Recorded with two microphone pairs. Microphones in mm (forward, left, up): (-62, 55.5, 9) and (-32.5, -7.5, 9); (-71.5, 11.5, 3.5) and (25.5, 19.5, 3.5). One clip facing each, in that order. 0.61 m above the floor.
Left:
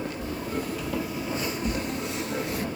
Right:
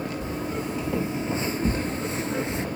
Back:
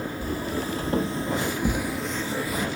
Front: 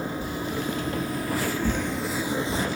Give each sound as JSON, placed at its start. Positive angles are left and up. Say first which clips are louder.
{"t": 0.2, "sound": "footsteps", "louder": "right 1 dB, back 1 dB", "azimuth_deg": -130, "distance_m": 1.5}